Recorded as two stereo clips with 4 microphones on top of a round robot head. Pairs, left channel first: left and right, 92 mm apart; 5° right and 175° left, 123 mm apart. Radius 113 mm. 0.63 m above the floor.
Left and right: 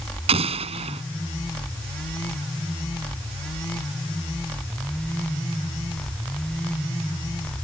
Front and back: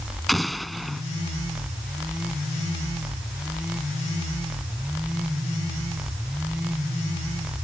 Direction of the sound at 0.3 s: 95° right.